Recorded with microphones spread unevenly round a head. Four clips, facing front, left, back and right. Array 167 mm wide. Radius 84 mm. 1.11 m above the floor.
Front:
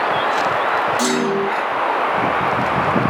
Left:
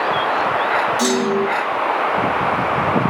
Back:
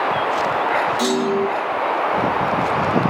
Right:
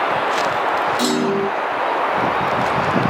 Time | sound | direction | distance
1.0 | a clunk | 60° right | 4.5 m